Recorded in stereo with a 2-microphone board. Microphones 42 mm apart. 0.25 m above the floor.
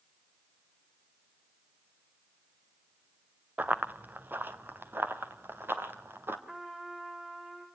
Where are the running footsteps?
40° right (ahead or behind), 1.2 m; by 6.4 s 60° right (ahead or behind), 3.5 m.